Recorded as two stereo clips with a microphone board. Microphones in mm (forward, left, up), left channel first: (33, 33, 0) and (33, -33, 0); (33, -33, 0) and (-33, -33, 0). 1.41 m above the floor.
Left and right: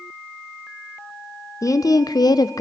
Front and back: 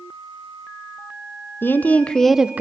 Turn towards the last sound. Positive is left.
turn(degrees=120)